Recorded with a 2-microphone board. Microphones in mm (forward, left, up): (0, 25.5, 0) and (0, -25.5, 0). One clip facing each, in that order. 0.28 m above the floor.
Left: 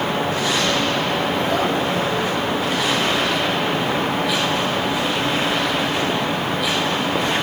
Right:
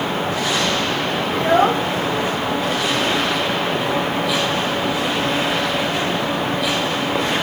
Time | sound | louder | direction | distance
1.3 | a child speaking | right 4 dB | 45° right (ahead or behind) | 1.1 m